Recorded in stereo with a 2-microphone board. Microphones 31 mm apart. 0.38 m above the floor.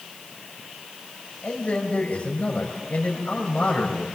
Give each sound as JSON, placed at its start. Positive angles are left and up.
{"t": 1.4, "sound": "a man speaking", "side_deg": 50, "distance_m": 6.0}